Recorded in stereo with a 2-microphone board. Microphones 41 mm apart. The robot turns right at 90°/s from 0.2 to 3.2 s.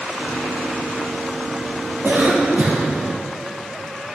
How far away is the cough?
About 1.9 m.